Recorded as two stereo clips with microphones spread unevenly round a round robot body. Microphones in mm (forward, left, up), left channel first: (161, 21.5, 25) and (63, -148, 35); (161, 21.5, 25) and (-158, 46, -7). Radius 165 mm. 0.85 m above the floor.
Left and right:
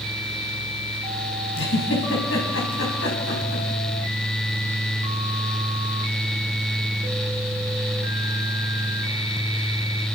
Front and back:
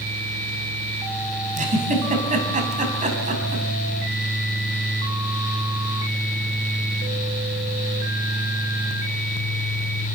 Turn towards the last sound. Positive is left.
turn(degrees=105)